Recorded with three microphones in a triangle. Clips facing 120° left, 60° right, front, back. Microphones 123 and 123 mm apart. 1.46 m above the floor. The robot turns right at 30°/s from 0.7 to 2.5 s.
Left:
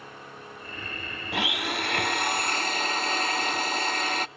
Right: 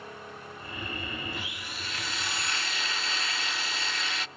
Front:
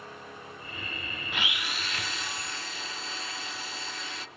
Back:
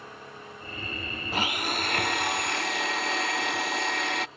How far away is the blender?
About 0.5 m.